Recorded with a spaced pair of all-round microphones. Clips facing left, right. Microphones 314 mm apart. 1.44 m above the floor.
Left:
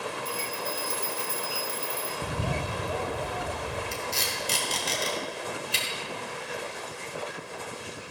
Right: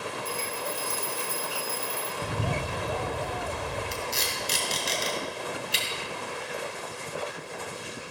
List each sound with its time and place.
0.2 s a bell: 35° left (ahead or behind), 1.7 m
2.2 s a bird: 10° left (ahead or behind), 0.6 m
3.9 s tape being pulled: 60° left (ahead or behind), 2.5 m